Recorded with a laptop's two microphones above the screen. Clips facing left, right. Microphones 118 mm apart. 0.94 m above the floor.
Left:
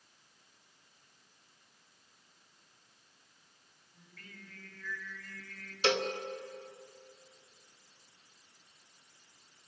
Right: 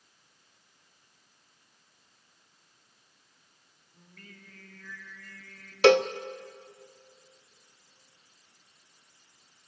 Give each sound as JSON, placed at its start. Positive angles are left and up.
{"t": 3.9, "sound": "singing", "side_deg": -40, "distance_m": 4.0}
{"t": 5.8, "sound": "a cowbell", "side_deg": -80, "distance_m": 0.5}